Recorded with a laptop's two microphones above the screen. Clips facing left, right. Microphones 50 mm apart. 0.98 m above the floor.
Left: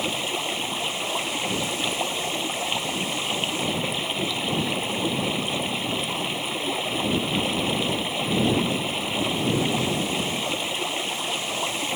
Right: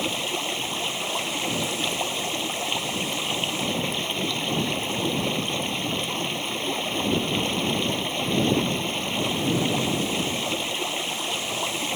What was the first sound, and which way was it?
Running water, 5° left (ahead or behind).